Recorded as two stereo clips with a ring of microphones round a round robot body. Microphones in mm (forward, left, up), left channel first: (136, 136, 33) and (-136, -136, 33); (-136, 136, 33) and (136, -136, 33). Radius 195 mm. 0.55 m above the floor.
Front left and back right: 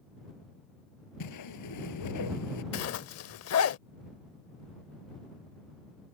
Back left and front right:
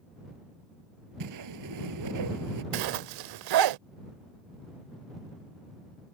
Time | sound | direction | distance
1.2 | a whoosh | straight ahead | ?
2.7 | a zipper | 10° right | ?